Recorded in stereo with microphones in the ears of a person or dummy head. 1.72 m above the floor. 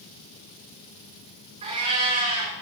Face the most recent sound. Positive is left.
turn(degrees=-35)  # may be behind; listen again after turning